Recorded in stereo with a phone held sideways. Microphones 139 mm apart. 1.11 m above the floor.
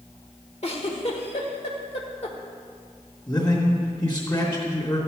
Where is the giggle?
50° left (ahead or behind), 1.6 m.